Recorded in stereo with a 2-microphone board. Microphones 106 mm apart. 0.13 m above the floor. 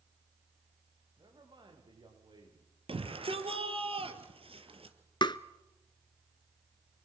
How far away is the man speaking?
About 9.5 m.